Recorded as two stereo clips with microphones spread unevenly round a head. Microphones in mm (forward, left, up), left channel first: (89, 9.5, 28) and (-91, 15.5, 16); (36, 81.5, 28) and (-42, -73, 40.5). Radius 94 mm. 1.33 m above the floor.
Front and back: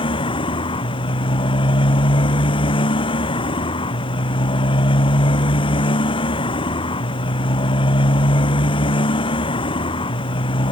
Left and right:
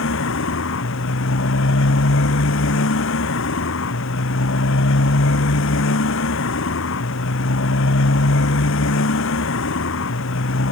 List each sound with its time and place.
0.0 s a motorcycle: 60° left